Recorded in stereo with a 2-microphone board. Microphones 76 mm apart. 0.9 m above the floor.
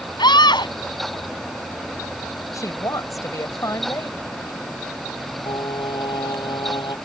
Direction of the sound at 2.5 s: 45° left (ahead or behind).